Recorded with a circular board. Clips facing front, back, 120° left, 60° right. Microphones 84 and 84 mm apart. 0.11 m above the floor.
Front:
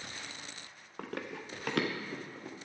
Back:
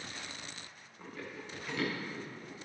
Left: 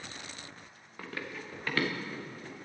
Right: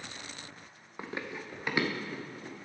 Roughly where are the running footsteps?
Ahead.